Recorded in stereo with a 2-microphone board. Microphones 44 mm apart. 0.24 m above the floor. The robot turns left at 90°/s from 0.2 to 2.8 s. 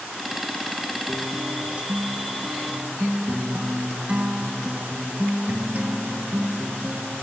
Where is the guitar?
25° left, 1.1 m; by 7.2 s 130° right, 1.1 m.